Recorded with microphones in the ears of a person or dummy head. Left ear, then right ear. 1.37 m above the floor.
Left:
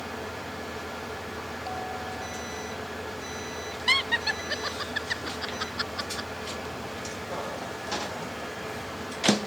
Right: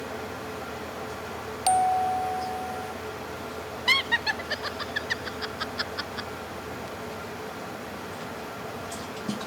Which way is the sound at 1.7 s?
35° right (ahead or behind).